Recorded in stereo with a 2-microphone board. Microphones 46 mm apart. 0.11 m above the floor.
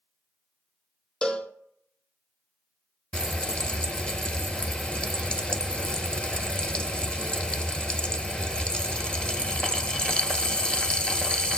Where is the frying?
25° left (ahead or behind), 0.7 m.